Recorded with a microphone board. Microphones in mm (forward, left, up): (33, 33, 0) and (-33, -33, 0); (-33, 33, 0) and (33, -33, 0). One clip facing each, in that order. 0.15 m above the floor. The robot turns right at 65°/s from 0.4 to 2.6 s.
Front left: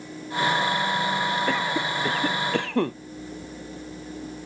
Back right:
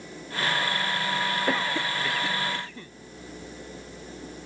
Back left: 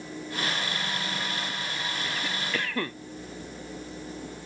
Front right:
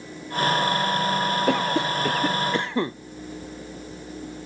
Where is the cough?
50° right; by 3.0 s 25° left.